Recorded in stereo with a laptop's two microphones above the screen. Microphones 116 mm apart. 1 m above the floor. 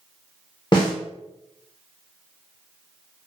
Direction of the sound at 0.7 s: 45° left (ahead or behind).